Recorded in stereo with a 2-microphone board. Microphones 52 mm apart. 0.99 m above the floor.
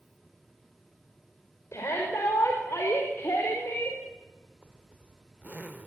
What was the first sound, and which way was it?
A shout, 70° left (ahead or behind).